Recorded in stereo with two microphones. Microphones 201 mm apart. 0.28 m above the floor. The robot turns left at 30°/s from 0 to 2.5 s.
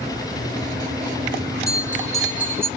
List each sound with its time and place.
1.7 s a bell: 15° left (ahead or behind), 1.9 m; by 2.7 s 10° right (ahead or behind), 1.9 m